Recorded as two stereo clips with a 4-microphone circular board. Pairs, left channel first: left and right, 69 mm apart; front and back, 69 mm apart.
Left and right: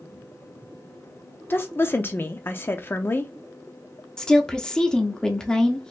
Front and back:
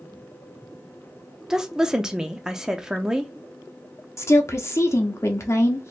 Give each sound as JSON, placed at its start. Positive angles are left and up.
{"t": 1.5, "sound": "a woman speaking", "azimuth_deg": 105, "distance_m": 0.6}
{"t": 4.2, "sound": "a woman speaking", "azimuth_deg": 15, "distance_m": 0.8}